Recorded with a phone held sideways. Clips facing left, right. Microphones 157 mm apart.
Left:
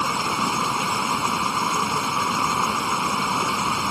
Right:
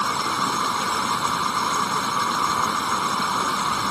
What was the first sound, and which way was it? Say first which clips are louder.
Running water: left 1 dB; 10° left (ahead or behind).